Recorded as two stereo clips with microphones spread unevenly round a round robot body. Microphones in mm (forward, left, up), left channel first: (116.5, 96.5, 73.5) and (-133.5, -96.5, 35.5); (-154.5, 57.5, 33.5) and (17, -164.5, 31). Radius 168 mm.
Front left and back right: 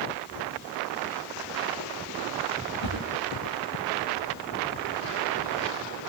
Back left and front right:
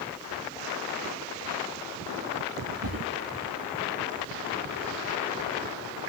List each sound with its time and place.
2.8 s a whoosh: 5° right, 8.5 m